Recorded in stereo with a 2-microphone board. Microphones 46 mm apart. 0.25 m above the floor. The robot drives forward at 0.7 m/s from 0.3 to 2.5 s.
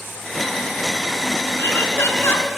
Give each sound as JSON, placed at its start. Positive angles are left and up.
{"t": 1.6, "sound": "laughter", "side_deg": 60, "distance_m": 3.0}